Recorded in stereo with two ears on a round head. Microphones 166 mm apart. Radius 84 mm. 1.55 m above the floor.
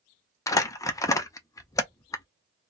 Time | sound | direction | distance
0.5 | crumpling | 20° left (ahead or behind) | 0.5 m